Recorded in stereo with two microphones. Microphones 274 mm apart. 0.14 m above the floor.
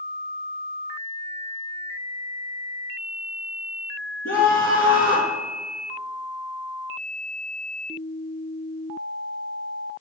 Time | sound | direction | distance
4.2 | a scream | 55° left (ahead or behind) | 2 m